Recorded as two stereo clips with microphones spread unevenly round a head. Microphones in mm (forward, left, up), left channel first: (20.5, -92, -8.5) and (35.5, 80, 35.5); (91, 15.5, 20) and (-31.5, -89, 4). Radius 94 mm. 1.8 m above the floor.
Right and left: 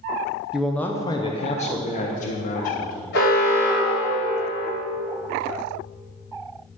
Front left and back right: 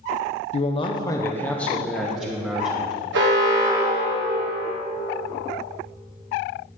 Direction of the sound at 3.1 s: 135° right.